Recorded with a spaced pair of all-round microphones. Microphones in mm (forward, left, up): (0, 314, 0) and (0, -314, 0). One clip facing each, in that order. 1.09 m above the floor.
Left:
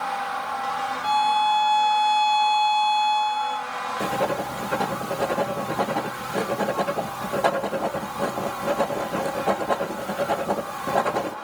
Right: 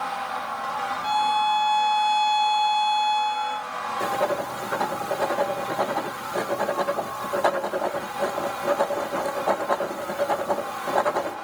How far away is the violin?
About 0.8 m.